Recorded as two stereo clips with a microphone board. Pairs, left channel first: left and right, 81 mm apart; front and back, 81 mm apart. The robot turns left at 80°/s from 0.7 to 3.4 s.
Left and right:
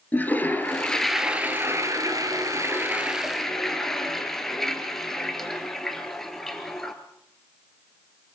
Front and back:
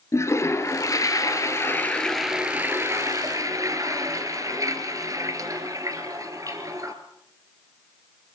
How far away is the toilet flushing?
About 2 m.